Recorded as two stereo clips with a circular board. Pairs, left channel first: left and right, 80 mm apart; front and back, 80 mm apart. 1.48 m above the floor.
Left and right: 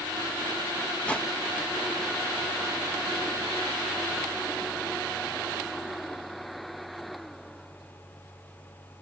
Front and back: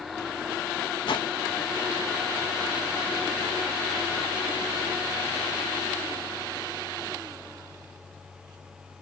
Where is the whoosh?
15° left.